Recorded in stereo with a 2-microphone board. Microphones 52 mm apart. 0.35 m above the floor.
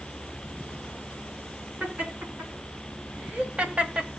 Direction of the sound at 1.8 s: 25° right (ahead or behind).